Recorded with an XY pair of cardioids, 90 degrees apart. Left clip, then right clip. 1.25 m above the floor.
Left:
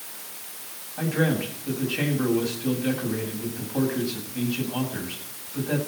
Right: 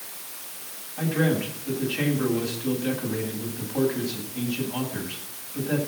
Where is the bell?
No bell in this recording.